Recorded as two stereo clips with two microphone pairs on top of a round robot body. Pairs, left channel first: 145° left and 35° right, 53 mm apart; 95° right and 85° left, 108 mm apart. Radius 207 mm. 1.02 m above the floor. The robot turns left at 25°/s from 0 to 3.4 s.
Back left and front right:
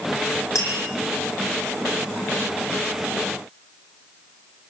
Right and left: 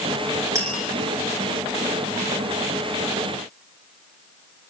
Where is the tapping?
145° left, 8 m; by 0.8 s 135° left, 8 m.